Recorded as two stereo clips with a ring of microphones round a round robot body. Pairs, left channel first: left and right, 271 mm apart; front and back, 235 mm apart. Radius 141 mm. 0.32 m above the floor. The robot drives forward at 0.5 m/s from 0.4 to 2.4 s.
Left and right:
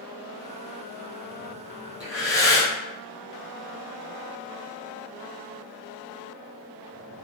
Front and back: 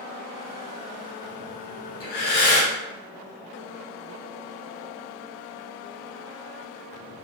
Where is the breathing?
15° left, 1.6 m; by 2.7 s 20° left, 1.5 m.